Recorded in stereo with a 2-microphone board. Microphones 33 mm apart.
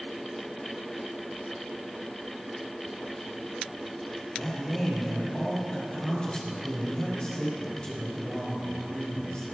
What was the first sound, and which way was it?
A man speaking, 30° left (ahead or behind).